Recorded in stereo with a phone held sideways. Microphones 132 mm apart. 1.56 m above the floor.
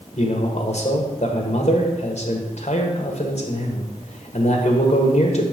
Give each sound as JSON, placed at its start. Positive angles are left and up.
{"t": 0.2, "sound": "a man speaking", "side_deg": 55, "distance_m": 1.3}